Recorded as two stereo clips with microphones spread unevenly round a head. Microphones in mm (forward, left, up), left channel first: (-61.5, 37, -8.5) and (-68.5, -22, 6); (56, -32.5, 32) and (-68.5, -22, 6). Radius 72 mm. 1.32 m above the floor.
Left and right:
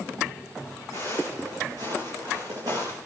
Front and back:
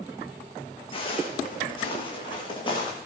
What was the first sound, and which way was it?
Footsteps, 50° right.